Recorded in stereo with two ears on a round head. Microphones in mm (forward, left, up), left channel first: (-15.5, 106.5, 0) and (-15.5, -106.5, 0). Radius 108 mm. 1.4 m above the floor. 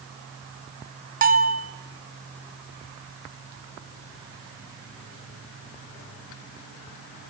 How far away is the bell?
About 2.5 m.